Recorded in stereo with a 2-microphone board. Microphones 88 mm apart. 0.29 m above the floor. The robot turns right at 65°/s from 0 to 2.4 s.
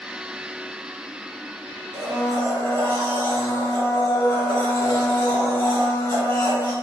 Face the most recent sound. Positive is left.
turn(degrees=35)  # may be behind; listen again after turning